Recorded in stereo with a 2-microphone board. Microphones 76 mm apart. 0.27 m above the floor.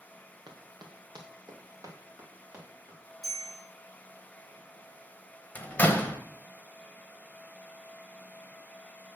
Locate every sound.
0.5 s running footsteps: 75° right (ahead or behind), 1.4 m; by 3.0 s 40° right (ahead or behind), 3 m
3.2 s a bell: 5° right (ahead or behind), 3.5 m
5.5 s a door slam: 20° left (ahead or behind), 0.6 m